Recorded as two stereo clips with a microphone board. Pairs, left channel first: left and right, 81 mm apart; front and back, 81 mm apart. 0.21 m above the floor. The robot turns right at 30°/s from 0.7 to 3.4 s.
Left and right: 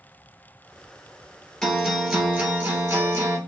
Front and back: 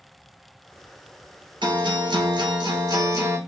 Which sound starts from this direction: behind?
A guitar, at 1.6 s.